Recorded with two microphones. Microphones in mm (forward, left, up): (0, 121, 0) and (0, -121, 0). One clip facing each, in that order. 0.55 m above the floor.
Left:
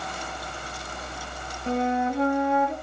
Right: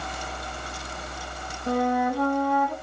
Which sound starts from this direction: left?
A flute, at 1.7 s.